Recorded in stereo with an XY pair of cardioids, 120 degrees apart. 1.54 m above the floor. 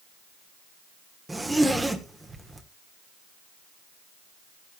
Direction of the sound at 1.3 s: 10° right.